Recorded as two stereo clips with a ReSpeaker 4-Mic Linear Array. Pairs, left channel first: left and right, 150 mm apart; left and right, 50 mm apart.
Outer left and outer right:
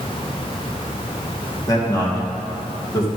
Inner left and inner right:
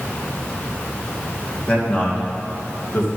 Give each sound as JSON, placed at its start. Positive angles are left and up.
{"t": 1.7, "sound": "a man speaking", "side_deg": 25, "distance_m": 2.0}